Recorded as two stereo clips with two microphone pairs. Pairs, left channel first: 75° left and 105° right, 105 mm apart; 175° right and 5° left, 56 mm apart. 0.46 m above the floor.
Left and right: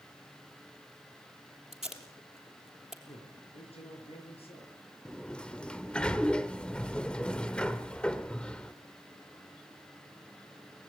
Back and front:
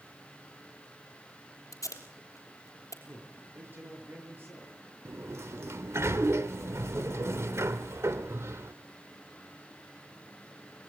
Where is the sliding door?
Straight ahead, 1.0 m.